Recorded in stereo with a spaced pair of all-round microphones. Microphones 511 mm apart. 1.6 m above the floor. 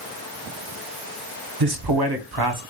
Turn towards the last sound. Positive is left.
turn(degrees=-50)  # may be behind; listen again after turning